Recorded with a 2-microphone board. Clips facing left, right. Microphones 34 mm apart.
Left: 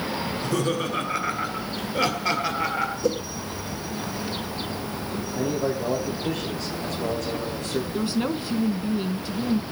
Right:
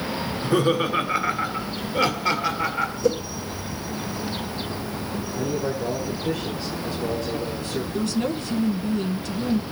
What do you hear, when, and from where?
0.3 s laughter: 35° right (ahead or behind), 1.3 m; by 2.9 s centre (ahead or behind), 3 m
3.0 s a whoosh: 5° left (ahead or behind), 1.8 m
5.3 s a man speaking: 80° left, 6.5 m
7.9 s a woman speaking: 20° left (ahead or behind), 1.1 m